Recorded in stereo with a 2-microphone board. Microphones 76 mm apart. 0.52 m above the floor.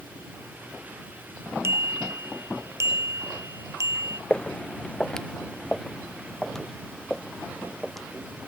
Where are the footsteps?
10° left (ahead or behind); by 8.5 s centre (ahead or behind).